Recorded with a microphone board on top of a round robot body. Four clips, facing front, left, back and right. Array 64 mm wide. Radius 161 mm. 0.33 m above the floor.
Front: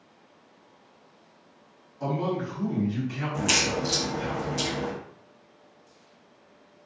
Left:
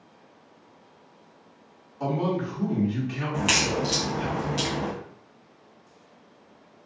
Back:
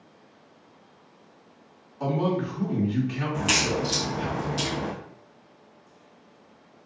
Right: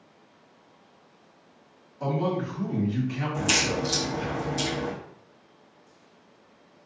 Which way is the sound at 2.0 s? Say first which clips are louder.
Left 1 dB, back 3 dB; 140° left.